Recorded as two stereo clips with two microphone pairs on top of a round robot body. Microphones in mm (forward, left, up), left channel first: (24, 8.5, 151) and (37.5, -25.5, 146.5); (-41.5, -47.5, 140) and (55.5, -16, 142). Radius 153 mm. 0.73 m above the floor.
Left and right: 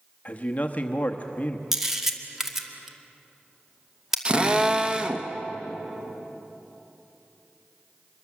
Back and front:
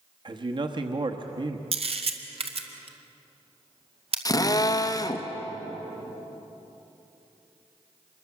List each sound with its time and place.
0.2 s a man speaking: 60° left, 1.0 m
1.7 s a camera shutter: 10° left, 2 m
4.2 s a drill: 120° right, 1.5 m